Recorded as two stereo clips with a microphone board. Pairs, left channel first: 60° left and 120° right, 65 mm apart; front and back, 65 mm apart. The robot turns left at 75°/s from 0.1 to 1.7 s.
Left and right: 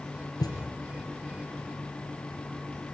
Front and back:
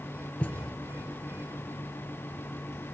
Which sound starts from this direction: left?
A thud, at 0.4 s.